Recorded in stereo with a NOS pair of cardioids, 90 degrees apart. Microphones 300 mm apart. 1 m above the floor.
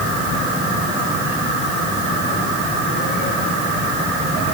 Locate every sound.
Only background noise.